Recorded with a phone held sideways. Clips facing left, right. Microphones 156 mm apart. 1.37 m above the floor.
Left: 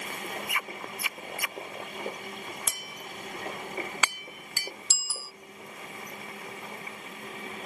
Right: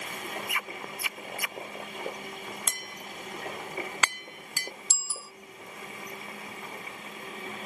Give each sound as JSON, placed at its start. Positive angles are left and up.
{"t": 2.7, "sound": "tapping", "side_deg": 5}
{"t": 4.9, "sound": "a bicycle bell", "side_deg": 85}